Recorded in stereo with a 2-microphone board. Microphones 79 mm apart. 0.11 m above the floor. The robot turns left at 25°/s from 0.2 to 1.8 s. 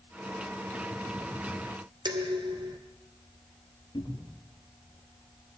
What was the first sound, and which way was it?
Dishes clattering, 70° right (ahead or behind).